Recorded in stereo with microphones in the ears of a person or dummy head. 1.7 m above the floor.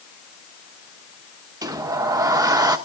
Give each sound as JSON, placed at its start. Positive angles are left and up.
{"t": 1.6, "sound": "a sliding door", "side_deg": -10, "distance_m": 1.0}